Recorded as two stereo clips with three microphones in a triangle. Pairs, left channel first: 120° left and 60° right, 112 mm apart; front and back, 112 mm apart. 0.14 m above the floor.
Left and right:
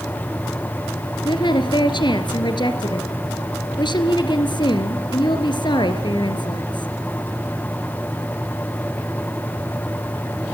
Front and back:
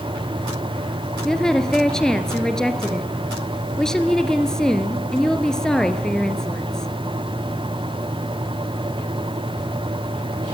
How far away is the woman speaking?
About 2.5 m.